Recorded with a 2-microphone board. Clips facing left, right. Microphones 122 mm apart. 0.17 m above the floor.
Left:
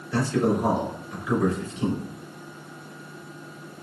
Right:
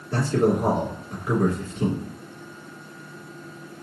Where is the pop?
No pop in this recording.